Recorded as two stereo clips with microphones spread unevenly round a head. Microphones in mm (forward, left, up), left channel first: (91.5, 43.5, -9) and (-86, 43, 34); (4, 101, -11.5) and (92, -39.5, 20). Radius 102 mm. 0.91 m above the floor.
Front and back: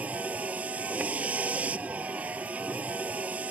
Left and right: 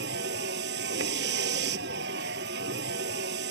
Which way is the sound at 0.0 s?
95° right.